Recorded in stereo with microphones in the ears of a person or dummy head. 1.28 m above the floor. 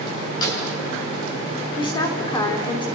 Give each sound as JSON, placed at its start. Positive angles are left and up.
{"t": 0.4, "sound": "a snare drum", "side_deg": 25, "distance_m": 9.5}
{"t": 1.8, "sound": "a woman speaking", "side_deg": 20, "distance_m": 3.5}